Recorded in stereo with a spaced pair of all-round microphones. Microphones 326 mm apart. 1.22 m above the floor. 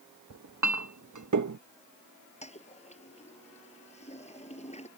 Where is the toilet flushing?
20° left (ahead or behind).